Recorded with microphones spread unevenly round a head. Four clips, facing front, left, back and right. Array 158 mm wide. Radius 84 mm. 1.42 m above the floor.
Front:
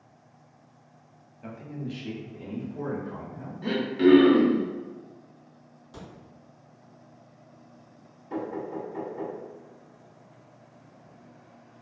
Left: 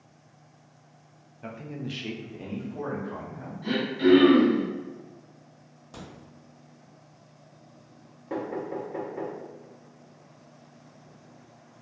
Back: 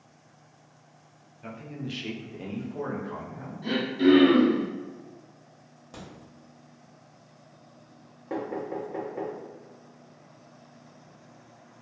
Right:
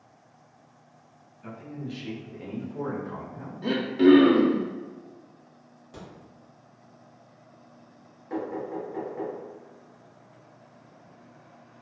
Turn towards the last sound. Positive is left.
turn(degrees=170)